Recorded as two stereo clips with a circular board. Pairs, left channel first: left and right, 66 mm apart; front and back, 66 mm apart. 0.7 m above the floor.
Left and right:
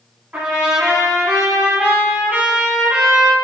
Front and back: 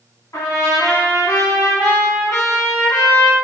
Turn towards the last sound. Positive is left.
turn(degrees=-20)